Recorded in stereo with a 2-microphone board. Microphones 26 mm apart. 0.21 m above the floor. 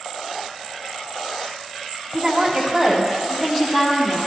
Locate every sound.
2.1 s a woman speaking: 25° right (ahead or behind), 1.4 m; by 4.3 s 40° left (ahead or behind), 2 m